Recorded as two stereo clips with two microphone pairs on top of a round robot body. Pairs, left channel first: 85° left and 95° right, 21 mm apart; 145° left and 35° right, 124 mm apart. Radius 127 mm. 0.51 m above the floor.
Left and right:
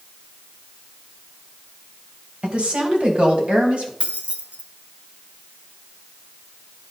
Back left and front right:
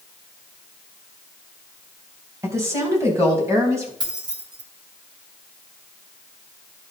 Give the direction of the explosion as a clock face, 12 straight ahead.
I don't hear an explosion.